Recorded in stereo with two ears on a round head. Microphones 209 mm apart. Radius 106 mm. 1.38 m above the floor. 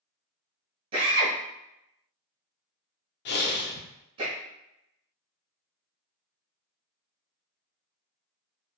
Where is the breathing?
45° left (ahead or behind), 0.6 m.